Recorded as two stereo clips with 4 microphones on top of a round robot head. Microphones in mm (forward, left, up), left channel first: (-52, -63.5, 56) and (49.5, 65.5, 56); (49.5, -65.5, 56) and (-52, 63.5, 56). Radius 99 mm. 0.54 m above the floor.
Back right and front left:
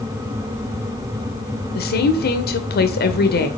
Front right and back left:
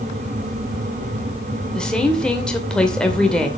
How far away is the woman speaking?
About 2 m.